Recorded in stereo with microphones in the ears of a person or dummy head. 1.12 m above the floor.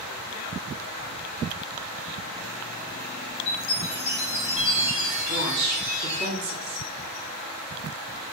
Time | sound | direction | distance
3.5 | a chime | 40° left (ahead or behind) | 1.9 m
5.3 | a woman speaking | 50° right (ahead or behind) | 1.8 m